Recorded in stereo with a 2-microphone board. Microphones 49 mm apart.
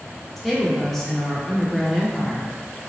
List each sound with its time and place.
0.4 s a woman speaking: 5° left (ahead or behind), 0.7 m